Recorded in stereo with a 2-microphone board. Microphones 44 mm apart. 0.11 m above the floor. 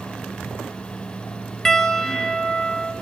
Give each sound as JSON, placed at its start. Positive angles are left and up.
{"t": 1.6, "sound": "a piano", "side_deg": 10, "distance_m": 1.1}